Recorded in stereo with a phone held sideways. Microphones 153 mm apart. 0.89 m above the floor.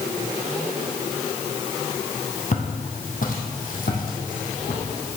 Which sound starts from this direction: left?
Footsteps, at 2.5 s.